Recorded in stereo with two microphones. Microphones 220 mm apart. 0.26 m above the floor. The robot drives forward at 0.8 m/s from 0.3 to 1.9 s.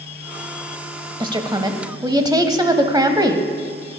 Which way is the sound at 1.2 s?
20° right (ahead or behind).